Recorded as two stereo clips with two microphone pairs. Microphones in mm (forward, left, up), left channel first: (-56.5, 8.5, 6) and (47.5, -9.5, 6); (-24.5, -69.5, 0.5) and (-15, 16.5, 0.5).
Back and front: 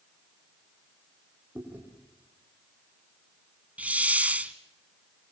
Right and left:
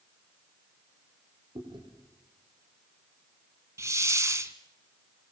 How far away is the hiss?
About 1.0 m.